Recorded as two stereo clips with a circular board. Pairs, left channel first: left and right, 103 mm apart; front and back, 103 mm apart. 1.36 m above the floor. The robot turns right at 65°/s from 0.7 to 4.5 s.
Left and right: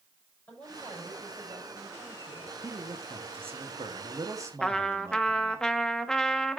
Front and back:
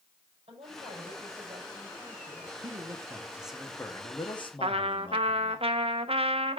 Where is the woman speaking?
165° left, 5.5 m; by 2.5 s 80° right, 5.5 m.